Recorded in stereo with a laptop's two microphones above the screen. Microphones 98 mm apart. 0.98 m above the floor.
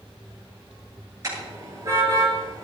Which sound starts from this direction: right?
A car horn, at 1.2 s.